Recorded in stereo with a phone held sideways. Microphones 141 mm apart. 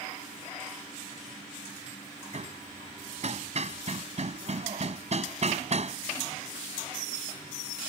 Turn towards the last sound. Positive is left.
turn(degrees=-50)  # may be behind; listen again after turning